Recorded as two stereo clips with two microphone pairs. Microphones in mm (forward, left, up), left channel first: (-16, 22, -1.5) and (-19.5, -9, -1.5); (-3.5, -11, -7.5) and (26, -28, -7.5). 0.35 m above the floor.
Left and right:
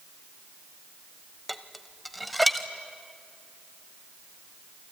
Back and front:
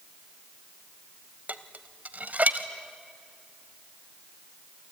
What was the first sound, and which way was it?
Dishes clattering, 5° right.